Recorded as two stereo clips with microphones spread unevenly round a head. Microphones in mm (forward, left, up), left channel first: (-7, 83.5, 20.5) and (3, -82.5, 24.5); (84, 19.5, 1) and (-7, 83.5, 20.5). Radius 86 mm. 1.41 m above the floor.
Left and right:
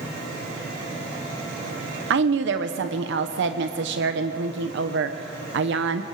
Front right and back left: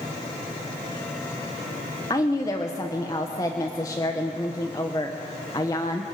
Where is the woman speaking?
105° right, 0.9 m.